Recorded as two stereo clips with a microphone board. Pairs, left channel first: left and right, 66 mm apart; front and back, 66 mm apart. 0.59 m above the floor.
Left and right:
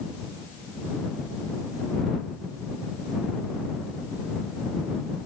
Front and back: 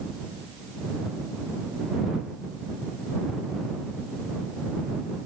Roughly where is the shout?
No shout in this recording.